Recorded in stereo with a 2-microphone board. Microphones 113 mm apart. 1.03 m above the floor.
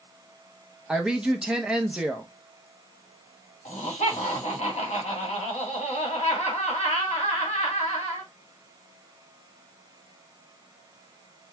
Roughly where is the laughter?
Left.